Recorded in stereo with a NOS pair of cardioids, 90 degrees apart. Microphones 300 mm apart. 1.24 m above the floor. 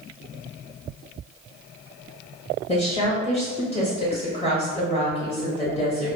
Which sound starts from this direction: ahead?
A woman speaking, at 2.7 s.